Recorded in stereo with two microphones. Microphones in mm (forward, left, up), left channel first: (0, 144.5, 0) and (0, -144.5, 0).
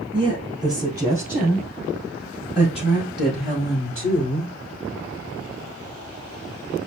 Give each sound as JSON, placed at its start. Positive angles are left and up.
{"t": 0.1, "sound": "a woman speaking", "side_deg": -15, "distance_m": 2.5}